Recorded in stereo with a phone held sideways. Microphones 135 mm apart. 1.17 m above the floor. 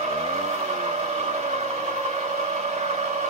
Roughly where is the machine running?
Right.